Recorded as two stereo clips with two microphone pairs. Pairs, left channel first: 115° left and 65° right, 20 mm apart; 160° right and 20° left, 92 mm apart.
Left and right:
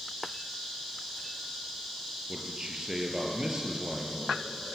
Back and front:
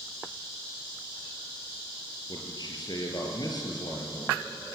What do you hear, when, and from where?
2.3 s a man speaking: 120° right, 4.5 m